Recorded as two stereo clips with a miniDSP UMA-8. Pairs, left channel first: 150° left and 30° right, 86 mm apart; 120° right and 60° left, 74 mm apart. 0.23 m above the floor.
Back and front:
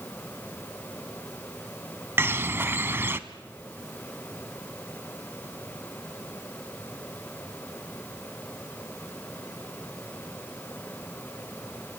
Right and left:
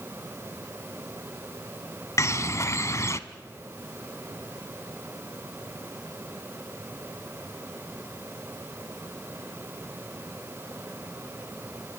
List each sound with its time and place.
2.2 s a bird: 85° right, 0.9 m